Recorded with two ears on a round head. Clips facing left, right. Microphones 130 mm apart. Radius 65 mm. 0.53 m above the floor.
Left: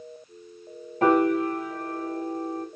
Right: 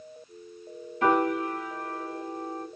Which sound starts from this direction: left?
A piano, at 1.0 s.